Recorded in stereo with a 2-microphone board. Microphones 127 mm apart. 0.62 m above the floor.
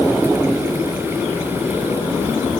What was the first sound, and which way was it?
Only background noise.